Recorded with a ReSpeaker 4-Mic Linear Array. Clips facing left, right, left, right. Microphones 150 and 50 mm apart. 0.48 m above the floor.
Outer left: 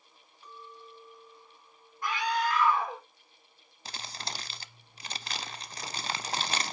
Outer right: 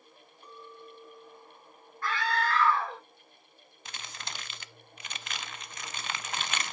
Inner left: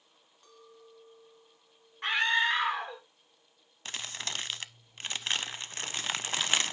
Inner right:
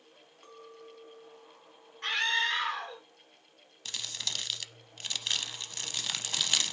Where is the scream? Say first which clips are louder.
Outer left 1 dB, inner left 3 dB; 15° left (ahead or behind), 1.2 m.